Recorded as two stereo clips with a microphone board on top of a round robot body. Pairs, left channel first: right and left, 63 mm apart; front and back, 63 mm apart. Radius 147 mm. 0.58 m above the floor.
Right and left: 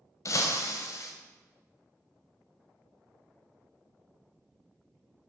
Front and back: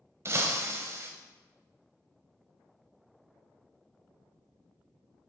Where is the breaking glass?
130° right, 0.6 m.